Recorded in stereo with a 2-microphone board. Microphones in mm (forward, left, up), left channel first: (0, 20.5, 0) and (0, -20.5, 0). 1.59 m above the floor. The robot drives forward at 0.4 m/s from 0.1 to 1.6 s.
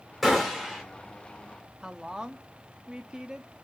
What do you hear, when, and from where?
0.2 s a gunshot: centre (ahead or behind), 1.3 m
1.8 s a woman speaking: 20° right (ahead or behind), 0.5 m